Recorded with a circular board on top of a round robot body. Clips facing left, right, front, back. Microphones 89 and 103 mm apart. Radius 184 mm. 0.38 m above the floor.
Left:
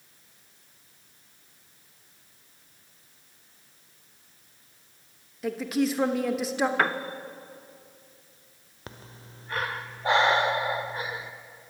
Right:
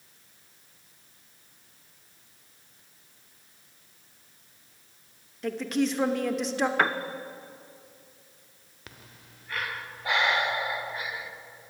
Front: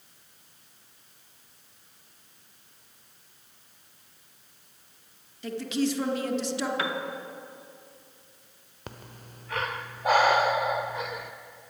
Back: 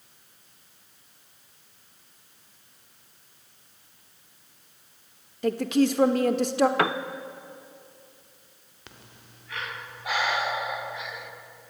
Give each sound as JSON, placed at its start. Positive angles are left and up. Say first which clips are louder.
{"t": 5.4, "sound": "a woman speaking", "louder": "left 1 dB, back 6 dB", "azimuth_deg": 175, "distance_m": 1.6}
{"t": 6.8, "sound": "a piano", "louder": "right 2 dB, back 6 dB", "azimuth_deg": 180, "distance_m": 1.0}
{"t": 8.9, "sound": "breathing", "louder": "left 5 dB, front 7 dB", "azimuth_deg": 40, "distance_m": 1.5}